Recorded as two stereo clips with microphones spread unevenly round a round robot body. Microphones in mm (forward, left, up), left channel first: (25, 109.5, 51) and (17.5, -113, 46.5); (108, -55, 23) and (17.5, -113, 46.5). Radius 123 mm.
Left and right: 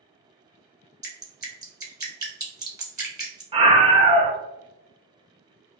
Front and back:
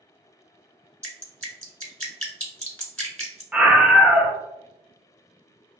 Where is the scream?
50° right, 0.8 m.